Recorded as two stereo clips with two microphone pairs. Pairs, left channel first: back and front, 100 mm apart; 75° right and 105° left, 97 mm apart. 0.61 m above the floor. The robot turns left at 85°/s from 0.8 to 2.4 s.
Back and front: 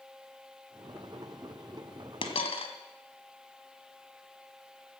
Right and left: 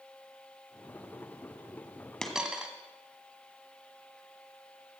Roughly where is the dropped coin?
Behind right.